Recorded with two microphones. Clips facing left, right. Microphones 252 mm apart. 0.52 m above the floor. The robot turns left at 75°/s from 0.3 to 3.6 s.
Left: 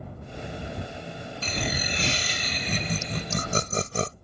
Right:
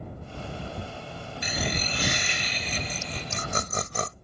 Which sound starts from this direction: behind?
Laughter, at 1.4 s.